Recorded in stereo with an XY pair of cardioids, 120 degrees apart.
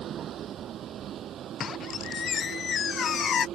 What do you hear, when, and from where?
0.0 s a vehicle: 55° right; by 3.6 s 60° right
1.6 s a squeak: 45° left